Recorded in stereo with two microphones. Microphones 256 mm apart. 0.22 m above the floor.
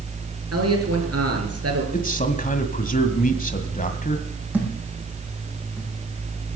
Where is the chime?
No chime in this recording.